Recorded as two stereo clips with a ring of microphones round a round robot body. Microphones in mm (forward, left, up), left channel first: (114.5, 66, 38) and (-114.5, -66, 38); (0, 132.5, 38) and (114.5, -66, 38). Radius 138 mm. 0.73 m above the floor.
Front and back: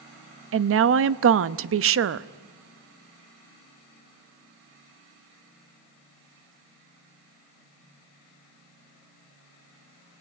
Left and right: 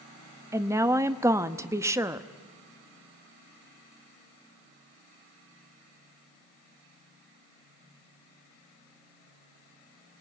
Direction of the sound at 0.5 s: 135° right.